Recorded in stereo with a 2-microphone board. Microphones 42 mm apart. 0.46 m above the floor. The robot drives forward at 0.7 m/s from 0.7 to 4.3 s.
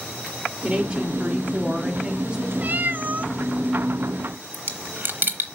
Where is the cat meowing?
40° right (ahead or behind), 0.5 m; by 3.3 s 35° right (ahead or behind), 0.6 m.